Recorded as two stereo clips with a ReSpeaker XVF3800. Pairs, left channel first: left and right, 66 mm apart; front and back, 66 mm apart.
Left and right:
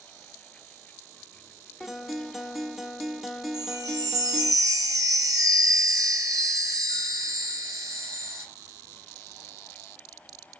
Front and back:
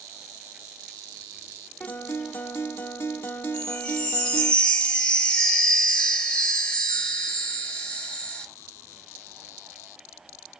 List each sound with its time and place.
1.8 s a guitar: 10° right, 0.9 m
3.5 s a chime: 75° right, 1.6 m